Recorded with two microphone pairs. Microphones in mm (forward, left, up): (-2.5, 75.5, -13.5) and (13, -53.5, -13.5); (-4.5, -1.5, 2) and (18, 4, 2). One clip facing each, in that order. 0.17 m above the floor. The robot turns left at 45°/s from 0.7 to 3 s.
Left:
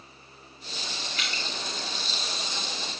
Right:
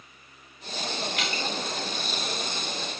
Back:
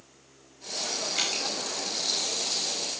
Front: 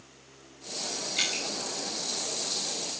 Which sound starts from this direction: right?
Dripping, at 1.2 s.